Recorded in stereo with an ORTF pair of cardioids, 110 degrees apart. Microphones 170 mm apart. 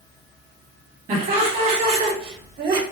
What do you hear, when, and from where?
1.1 s laughter: 60° right, 3.5 m; by 2.8 s 70° right, 2.5 m